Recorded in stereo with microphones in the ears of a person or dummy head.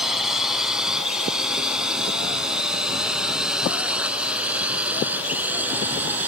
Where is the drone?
Centre (ahead or behind); by 6.3 s 10° right (ahead or behind).